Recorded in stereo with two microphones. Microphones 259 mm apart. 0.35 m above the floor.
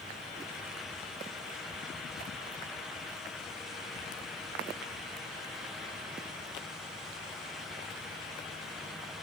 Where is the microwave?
No microwave in this recording.